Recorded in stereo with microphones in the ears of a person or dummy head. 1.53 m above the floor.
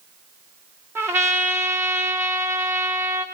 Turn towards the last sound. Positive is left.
turn(degrees=-10)  # may be behind; listen again after turning